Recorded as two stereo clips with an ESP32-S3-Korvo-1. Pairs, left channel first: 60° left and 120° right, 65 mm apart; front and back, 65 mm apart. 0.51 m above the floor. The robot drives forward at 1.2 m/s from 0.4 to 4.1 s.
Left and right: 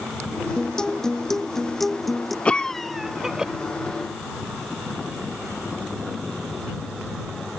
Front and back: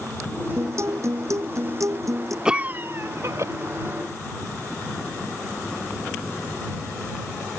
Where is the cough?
115° left; by 3.5 s 165° left.